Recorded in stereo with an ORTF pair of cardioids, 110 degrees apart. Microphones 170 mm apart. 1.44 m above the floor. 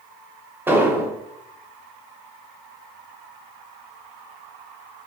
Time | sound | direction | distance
0.7 | an explosion | 15° right | 0.8 m